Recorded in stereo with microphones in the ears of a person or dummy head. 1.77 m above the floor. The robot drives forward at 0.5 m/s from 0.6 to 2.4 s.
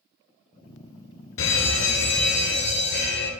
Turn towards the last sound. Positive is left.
turn(degrees=50)  # may be behind; listen again after turning